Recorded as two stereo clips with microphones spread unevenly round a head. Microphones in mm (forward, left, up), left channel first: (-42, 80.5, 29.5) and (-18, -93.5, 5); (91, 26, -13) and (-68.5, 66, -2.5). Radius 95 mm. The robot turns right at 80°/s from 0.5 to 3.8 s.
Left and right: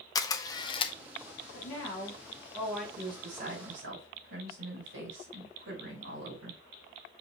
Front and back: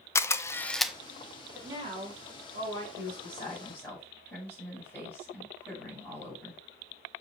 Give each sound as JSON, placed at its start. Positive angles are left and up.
{"t": 0.1, "sound": "a camera shutter", "azimuth_deg": 55, "distance_m": 0.6}
{"t": 1.5, "sound": "a woman speaking", "azimuth_deg": 85, "distance_m": 3.5}
{"t": 3.0, "sound": "a woman speaking", "azimuth_deg": -160, "distance_m": 5.0}